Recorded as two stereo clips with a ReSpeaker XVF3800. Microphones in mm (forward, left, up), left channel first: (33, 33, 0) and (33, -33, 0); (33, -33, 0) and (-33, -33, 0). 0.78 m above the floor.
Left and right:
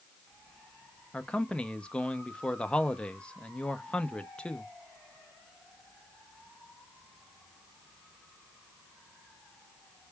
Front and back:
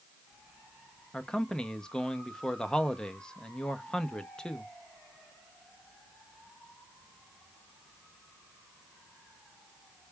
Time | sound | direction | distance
1.1 | a man speaking | 55° left | 0.6 m